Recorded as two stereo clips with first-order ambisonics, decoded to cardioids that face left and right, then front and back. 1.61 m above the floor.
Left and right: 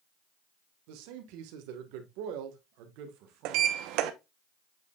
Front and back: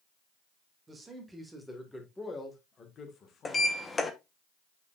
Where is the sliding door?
75° right, 1.0 m.